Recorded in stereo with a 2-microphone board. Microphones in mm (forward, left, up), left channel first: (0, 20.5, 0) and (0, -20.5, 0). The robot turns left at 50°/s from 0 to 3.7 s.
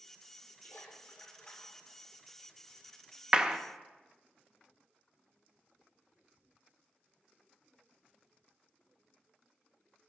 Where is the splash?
75° left, 2.5 m; by 2.0 s 5° left, 2.5 m.